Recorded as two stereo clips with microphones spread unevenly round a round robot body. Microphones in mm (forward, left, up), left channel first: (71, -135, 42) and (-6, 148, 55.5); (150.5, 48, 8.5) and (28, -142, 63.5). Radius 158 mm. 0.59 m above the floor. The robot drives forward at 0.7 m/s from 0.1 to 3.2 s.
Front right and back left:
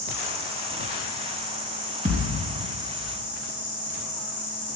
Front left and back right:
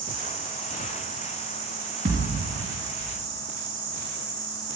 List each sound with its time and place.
0.0 s an insect: 165° left, 3.5 m; by 4.8 s 170° left, 5.5 m
2.0 s a thud: 170° left, 3 m